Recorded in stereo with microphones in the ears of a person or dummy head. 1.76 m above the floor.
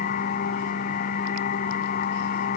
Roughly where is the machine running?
Left.